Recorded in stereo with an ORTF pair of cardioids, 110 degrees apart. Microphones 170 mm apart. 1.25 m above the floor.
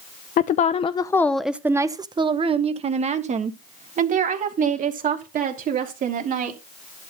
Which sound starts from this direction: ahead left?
A woman speaking, at 0.4 s.